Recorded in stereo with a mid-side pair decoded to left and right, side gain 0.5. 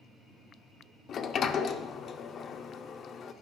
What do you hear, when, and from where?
1.1 s a sliding door: 50° left, 0.6 m